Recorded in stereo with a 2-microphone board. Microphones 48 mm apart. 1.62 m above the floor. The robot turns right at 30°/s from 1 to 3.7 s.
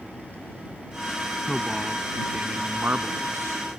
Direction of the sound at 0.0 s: 145° left.